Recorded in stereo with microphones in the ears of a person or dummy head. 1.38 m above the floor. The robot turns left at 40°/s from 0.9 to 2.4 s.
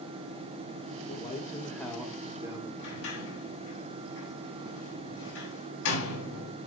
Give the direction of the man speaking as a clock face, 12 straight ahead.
11 o'clock.